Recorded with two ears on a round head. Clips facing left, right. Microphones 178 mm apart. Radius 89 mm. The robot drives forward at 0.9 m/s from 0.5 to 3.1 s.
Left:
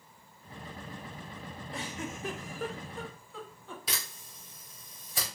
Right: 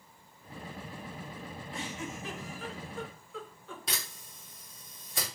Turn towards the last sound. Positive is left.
turn(degrees=0)  # may be behind; listen again after turning